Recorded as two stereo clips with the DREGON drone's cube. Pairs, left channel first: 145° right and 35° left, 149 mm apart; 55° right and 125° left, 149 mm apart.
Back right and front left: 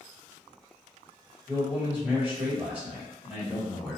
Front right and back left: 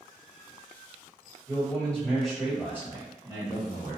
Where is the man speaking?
15° right, 1.6 m; by 4.0 s 120° left, 1.8 m.